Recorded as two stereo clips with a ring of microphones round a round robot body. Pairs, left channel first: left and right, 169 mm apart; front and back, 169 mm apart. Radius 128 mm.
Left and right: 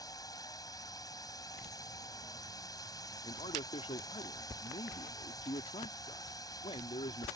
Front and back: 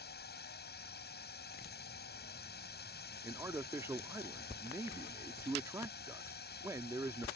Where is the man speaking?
120° left.